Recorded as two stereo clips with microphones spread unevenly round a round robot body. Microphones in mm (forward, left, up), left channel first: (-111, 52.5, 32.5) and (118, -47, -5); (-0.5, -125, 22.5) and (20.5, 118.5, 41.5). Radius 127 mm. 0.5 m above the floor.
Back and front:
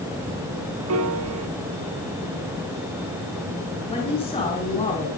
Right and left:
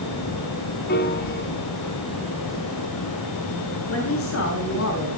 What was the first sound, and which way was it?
A piano, 45° right.